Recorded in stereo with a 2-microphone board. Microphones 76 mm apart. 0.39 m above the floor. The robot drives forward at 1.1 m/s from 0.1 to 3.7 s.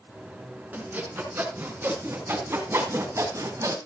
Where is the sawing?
20° right (ahead or behind), 5.5 m; by 3.8 s 45° right (ahead or behind), 3 m.